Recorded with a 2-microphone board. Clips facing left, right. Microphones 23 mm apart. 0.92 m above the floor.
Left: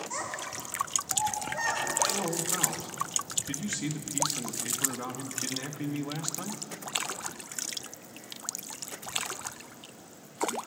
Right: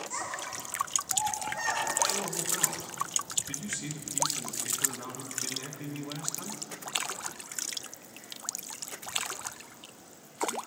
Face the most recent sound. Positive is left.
turn(degrees=45)  # may be behind; listen again after turning